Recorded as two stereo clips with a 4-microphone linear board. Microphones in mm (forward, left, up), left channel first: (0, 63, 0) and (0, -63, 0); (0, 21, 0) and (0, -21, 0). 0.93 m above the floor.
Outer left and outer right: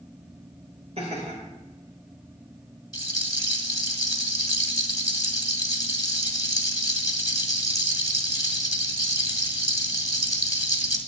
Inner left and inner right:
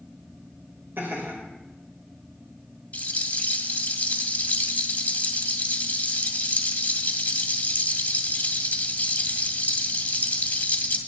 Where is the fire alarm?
I don't hear a fire alarm.